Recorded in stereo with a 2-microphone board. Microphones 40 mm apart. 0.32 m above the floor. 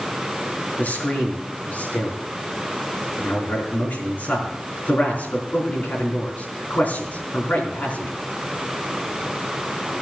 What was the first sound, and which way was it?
A man speaking, 45° left (ahead or behind).